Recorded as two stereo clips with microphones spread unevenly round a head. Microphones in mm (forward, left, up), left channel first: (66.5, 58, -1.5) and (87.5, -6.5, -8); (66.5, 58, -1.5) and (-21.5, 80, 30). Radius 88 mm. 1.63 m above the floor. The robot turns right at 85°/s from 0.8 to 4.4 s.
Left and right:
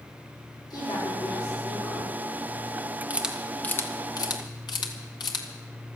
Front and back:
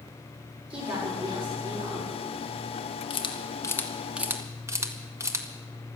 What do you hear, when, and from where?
0.7 s a woman speaking: 160° left, 7.5 m; by 2.1 s 85° right, 7.5 m
3.1 s a camera shutter: 5° right, 1.8 m; by 5.5 s 105° left, 1.8 m